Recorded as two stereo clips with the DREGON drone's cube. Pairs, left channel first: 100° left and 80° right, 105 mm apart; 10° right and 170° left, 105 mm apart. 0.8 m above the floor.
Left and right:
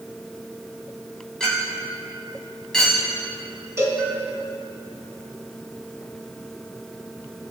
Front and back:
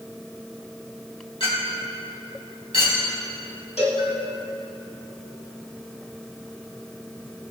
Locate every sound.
1.4 s a clink: 15° left, 3 m
3.8 s a cowbell: 15° right, 2 m